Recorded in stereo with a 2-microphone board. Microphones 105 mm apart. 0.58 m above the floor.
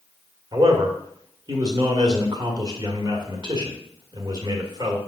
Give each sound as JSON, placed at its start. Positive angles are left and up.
{"t": 0.5, "sound": "a man speaking", "side_deg": -40, "distance_m": 1.5}